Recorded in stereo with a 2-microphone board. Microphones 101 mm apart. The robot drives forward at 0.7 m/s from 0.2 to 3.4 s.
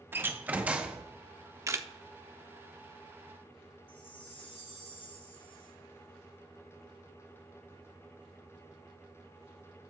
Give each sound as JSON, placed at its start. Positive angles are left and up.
{"t": 0.1, "sound": "a door slam", "side_deg": -20, "distance_m": 0.6}
{"t": 1.7, "sound": "a camera shutter", "side_deg": -30, "distance_m": 0.5}
{"t": 3.9, "sound": "a chime", "side_deg": 65, "distance_m": 2.5}